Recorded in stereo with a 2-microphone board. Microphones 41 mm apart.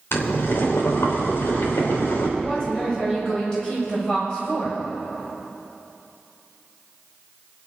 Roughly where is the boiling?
Left.